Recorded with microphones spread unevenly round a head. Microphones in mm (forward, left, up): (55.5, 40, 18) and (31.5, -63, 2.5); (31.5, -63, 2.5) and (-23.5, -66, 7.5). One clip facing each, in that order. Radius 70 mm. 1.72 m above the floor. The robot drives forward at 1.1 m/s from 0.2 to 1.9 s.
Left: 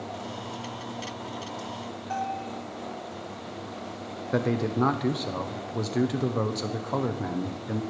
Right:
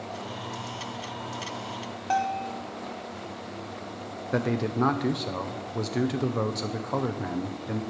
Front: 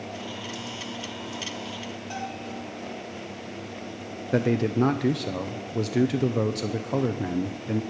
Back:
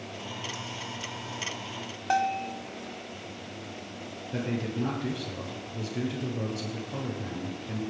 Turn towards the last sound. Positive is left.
turn(degrees=-5)